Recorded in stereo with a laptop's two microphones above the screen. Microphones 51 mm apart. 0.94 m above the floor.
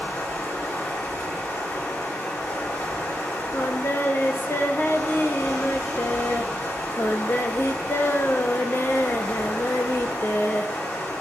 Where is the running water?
60° left (ahead or behind), 5 m.